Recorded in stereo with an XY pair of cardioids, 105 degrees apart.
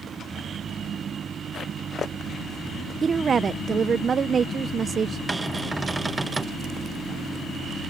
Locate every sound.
3.0 s a woman speaking: 40° right
5.3 s a cupboard door: 20° right